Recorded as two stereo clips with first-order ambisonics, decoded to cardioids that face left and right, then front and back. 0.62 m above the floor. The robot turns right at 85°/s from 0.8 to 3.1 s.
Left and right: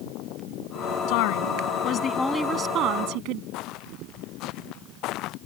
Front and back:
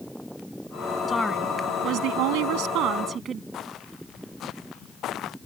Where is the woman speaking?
75° left; by 3.4 s 115° right.